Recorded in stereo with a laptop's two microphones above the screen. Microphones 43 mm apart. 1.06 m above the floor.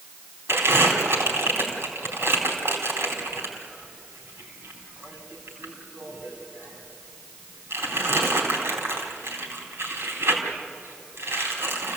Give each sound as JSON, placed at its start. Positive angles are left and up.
{"t": 0.5, "sound": "crumpling", "side_deg": -80, "distance_m": 4.0}